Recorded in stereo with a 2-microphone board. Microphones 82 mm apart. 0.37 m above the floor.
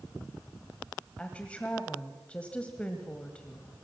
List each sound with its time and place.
1.2 s a woman speaking: 15° left (ahead or behind), 1.7 m